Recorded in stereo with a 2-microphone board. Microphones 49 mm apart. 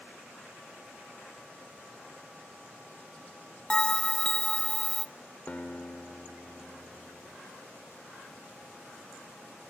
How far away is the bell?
About 0.5 m.